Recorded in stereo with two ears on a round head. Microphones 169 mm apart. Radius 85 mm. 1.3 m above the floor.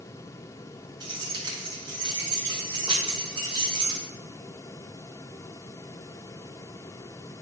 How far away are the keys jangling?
About 4 m.